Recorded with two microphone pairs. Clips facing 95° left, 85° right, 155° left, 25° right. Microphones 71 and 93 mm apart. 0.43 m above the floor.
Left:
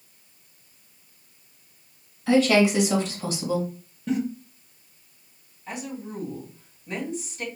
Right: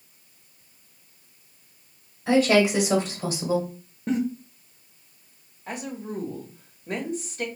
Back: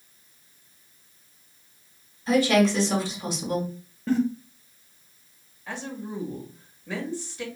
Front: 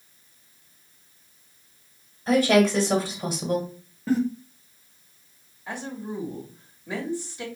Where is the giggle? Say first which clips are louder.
Right 1 dB, front 1 dB; 110° right, 1.1 m.